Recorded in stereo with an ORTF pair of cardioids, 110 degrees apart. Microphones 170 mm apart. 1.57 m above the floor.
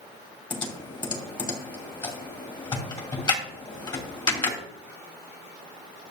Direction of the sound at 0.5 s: 25° left.